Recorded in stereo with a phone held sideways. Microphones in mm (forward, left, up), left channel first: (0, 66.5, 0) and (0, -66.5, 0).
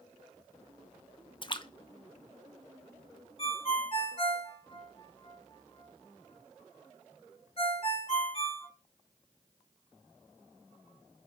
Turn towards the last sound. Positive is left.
turn(degrees=45)  # may be behind; listen again after turning